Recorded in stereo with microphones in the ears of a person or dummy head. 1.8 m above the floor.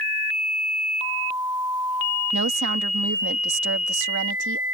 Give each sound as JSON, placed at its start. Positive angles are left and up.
{"t": 2.3, "sound": "a woman speaking", "side_deg": -60}